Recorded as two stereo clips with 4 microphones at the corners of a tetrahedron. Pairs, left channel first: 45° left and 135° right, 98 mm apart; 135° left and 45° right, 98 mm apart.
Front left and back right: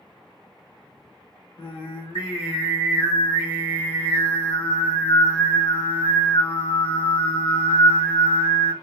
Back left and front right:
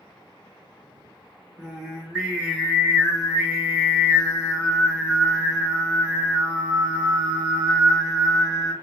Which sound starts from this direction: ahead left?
Singing, at 1.6 s.